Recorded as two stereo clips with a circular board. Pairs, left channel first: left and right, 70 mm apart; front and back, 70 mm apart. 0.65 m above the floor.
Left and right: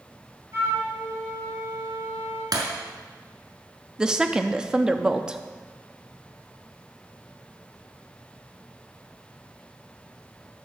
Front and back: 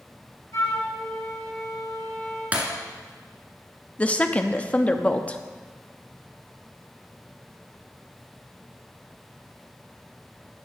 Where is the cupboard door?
No cupboard door in this recording.